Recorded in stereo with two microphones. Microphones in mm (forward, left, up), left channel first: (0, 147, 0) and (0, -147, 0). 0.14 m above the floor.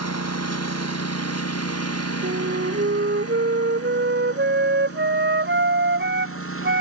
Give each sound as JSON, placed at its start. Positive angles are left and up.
{"t": 0.0, "sound": "a lawn mower", "side_deg": 60}
{"t": 2.2, "sound": "a flute", "side_deg": -40}